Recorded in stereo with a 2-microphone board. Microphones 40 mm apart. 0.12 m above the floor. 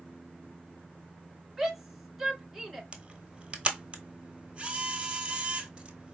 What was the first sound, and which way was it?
A shout, 5° right (ahead or behind).